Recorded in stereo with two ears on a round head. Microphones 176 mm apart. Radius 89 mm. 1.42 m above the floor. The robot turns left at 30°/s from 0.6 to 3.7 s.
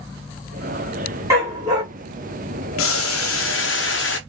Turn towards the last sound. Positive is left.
turn(degrees=65)  # may be behind; listen again after turning